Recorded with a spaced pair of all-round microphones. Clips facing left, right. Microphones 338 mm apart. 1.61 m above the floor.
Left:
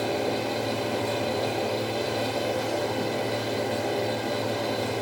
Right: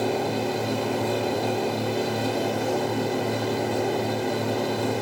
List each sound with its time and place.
0.0 s a fan: 60° right (ahead or behind), 0.8 m